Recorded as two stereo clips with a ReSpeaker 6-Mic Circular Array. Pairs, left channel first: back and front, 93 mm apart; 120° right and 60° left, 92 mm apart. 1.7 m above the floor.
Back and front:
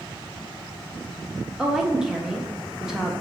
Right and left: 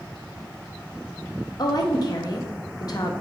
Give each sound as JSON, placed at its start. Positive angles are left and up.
{"t": 1.6, "sound": "a woman speaking", "azimuth_deg": -85, "distance_m": 0.6}